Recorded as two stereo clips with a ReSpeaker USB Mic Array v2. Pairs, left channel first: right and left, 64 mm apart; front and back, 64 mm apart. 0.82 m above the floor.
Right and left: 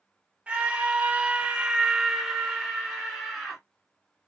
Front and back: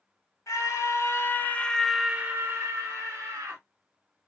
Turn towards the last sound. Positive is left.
turn(degrees=-170)